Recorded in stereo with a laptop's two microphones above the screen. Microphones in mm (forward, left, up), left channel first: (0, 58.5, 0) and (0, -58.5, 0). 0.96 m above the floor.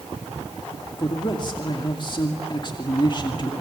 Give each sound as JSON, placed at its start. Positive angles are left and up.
{"t": 1.0, "sound": "a man speaking", "side_deg": 40, "distance_m": 2.5}